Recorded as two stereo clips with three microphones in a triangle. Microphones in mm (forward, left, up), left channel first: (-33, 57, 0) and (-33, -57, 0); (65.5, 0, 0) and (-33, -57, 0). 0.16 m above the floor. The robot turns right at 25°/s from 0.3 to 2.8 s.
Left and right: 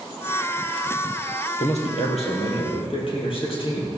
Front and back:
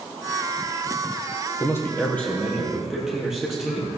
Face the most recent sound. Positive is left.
turn(degrees=125)